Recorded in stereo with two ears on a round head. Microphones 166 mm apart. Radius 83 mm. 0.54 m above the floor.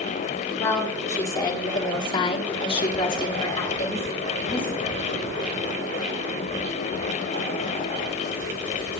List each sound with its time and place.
0.6 s a woman speaking: 15° left (ahead or behind), 2.5 m